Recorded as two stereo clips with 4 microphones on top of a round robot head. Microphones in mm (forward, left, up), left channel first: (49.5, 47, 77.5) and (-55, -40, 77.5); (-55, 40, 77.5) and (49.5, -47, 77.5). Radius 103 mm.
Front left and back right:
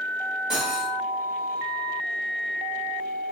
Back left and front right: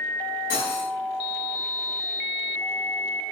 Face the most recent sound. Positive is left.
turn(degrees=135)